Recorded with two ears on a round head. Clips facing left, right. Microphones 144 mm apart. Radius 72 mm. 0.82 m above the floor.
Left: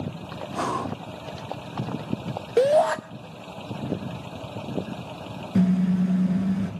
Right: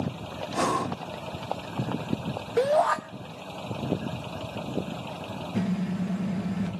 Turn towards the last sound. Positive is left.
turn(degrees=70)  # may be behind; listen again after turning